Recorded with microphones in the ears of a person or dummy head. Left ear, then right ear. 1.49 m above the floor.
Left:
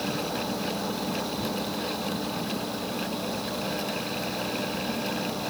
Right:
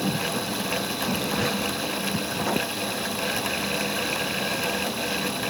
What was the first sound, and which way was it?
Only background noise.